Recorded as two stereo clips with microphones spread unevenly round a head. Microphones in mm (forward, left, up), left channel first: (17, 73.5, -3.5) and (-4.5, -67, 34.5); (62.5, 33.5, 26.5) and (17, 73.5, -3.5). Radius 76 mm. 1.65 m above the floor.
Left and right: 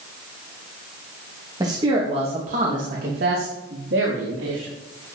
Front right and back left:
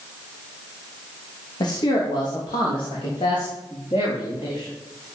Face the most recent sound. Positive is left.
turn(degrees=-95)